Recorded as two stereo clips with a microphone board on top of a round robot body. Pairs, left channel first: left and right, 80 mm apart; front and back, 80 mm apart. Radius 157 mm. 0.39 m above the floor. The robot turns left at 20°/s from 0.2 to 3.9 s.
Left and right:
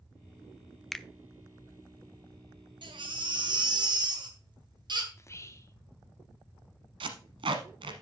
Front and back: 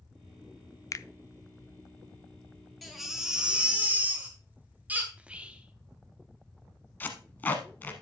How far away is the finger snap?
About 0.6 m.